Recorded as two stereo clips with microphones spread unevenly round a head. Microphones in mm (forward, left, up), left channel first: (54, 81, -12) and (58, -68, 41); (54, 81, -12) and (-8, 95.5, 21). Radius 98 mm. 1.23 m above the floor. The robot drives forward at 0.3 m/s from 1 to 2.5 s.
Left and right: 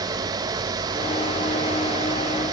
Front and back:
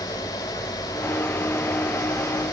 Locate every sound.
Only background noise.